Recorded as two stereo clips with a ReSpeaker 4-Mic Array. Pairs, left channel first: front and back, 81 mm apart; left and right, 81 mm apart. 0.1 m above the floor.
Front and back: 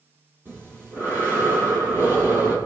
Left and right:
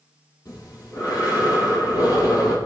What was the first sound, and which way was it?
Breathing, 120° left.